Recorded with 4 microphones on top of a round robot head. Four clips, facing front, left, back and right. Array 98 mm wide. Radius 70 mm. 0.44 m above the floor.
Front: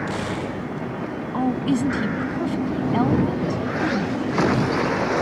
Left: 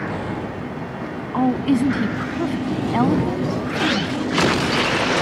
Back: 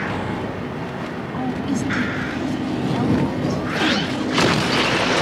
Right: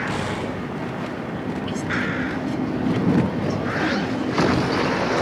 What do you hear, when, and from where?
1.3 s a woman speaking: 75° left